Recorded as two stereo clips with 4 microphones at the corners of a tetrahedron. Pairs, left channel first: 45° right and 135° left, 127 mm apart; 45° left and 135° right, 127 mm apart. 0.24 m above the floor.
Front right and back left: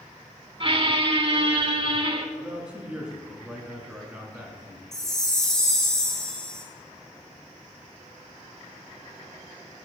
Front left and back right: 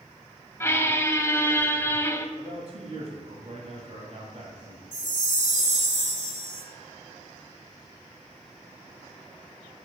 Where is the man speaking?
145° right, 1.6 m.